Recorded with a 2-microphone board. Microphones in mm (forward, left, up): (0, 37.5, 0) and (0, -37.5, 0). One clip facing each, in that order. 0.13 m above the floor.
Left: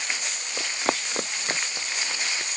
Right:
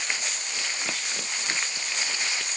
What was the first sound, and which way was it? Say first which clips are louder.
Running footsteps: left 8 dB; 50° left (ahead or behind).